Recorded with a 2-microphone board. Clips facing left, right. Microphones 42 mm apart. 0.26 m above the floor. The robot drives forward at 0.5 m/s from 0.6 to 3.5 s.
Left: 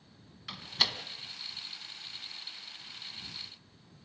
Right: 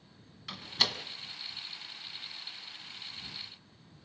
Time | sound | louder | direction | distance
0.5 | a door slam | even | 5° left (ahead or behind) | 1.9 m